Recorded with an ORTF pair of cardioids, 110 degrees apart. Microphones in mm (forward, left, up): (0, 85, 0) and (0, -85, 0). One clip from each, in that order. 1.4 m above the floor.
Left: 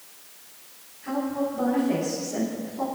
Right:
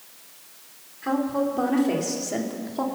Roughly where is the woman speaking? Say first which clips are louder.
Right 3 dB; right.